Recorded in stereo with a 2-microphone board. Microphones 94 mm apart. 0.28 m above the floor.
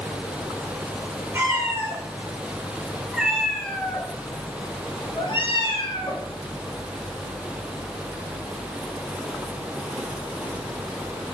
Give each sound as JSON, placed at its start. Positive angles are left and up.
{"t": 1.3, "sound": "a cat meowing", "side_deg": -25, "distance_m": 3.5}